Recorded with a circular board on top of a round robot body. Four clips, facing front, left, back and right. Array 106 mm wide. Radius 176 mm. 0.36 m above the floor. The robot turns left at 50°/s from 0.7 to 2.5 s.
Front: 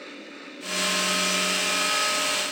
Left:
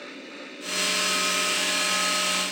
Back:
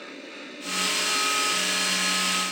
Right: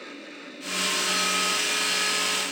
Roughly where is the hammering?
No hammering in this recording.